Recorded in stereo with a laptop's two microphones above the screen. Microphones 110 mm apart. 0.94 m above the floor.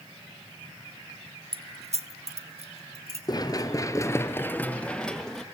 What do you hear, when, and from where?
1.5 s keys jangling: 60° right (ahead or behind), 0.6 m; by 3.2 s 70° right (ahead or behind), 2 m
3.3 s running footsteps: 35° left (ahead or behind), 1.1 m; by 5.4 s centre (ahead or behind), 1.4 m